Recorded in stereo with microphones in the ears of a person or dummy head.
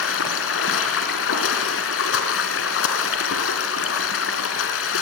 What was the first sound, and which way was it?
Running water, 75° left (ahead or behind).